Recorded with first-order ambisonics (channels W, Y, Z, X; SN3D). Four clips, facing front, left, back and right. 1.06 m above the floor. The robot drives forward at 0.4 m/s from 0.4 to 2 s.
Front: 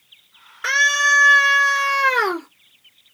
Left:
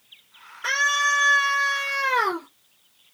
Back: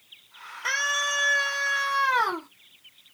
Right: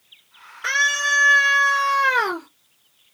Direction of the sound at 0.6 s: 10° right.